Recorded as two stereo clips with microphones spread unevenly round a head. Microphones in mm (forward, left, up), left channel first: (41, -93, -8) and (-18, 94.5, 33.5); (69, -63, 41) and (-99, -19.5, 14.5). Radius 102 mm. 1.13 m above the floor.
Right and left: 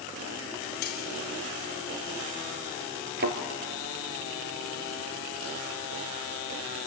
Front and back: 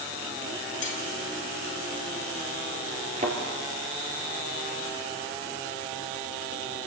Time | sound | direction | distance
0.8 | cutlery clinking | 30° right | 2 m
3.2 | a thud | 100° left | 2 m